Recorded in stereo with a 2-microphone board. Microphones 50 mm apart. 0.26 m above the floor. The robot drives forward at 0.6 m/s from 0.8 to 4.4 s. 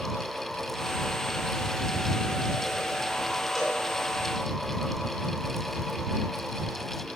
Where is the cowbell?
5° left (ahead or behind), 2.5 m.